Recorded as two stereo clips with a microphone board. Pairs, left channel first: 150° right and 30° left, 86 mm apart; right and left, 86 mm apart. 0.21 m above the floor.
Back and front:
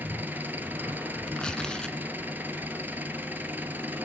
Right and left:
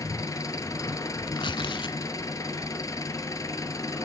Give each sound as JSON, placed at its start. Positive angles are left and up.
{"t": 0.0, "sound": "an engine running", "azimuth_deg": -40, "distance_m": 1.5}
{"t": 1.3, "sound": "tearing paper", "azimuth_deg": -70, "distance_m": 0.6}